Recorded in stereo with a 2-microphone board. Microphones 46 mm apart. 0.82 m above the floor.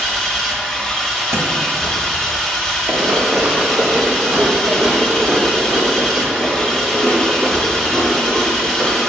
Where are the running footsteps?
40° right (ahead or behind), 1.8 m; by 9.0 s 15° left (ahead or behind), 4 m.